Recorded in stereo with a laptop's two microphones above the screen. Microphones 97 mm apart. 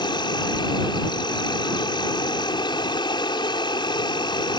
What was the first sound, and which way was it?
An insect, 50° left (ahead or behind).